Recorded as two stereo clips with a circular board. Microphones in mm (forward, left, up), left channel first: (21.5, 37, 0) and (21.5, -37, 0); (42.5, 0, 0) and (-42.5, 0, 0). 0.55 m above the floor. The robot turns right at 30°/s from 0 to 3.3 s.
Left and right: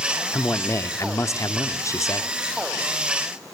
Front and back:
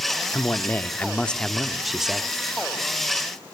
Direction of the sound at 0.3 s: 45° left.